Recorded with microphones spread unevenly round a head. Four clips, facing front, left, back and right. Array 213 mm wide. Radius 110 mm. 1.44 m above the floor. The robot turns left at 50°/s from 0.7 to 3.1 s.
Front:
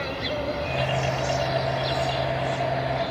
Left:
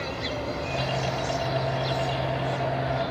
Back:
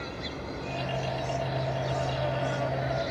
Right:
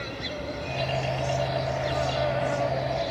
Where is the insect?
5° right; by 3.1 s 125° right.